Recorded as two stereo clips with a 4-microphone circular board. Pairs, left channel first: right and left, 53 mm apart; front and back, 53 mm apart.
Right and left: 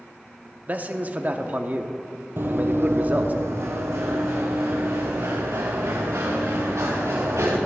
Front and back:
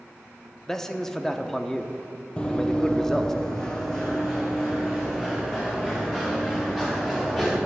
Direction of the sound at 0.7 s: 75° left.